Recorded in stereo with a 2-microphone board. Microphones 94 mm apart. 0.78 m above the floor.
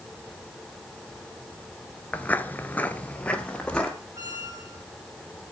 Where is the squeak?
40° right (ahead or behind), 5.5 m.